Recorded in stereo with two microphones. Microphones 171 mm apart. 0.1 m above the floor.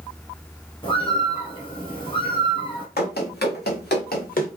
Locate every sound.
0.8 s a bird: 30° left (ahead or behind), 1.7 m
3.0 s running footsteps: 80° left, 2 m; by 4.5 s 55° left (ahead or behind), 1.6 m